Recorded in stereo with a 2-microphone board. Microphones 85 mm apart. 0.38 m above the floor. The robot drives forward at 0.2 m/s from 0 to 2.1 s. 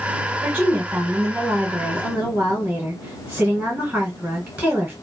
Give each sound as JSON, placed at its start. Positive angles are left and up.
{"t": 0.4, "sound": "a woman speaking", "side_deg": -15, "distance_m": 1.6}